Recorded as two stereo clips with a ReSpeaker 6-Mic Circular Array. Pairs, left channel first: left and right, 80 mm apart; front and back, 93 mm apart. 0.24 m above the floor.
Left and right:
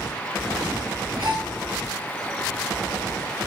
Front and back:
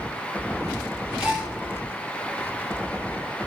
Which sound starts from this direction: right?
A gasp, at 1.2 s.